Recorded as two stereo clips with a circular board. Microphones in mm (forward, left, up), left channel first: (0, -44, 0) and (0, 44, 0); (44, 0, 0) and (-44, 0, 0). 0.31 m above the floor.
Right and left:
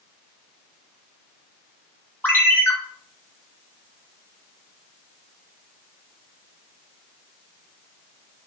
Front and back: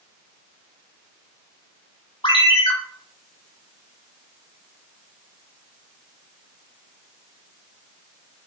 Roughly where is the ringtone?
Ahead right.